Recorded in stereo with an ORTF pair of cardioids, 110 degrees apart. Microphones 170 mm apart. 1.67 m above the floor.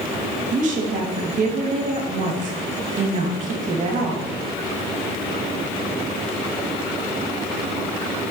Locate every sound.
0.5 s a woman speaking: 50° right, 3 m